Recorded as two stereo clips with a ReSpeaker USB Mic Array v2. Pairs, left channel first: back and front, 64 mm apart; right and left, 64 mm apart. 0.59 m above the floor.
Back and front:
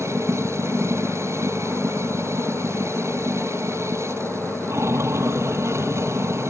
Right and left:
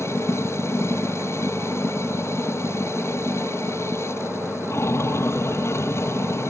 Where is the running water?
45° right.